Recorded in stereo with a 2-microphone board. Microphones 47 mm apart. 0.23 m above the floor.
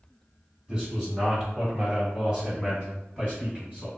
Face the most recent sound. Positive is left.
turn(degrees=-20)  # may be behind; listen again after turning